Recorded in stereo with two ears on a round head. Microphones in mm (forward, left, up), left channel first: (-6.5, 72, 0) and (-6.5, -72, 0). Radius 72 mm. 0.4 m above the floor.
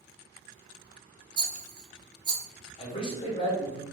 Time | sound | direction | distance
1.4 | a rattle | 30° right (ahead or behind) | 0.6 m
2.8 | a man speaking | 35° left (ahead or behind) | 1.0 m